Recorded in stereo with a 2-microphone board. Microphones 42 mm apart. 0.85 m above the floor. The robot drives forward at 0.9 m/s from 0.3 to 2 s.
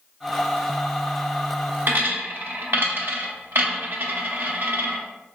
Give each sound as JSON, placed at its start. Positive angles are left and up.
{"t": 1.9, "sound": "a dropped coin", "side_deg": -50, "distance_m": 0.7}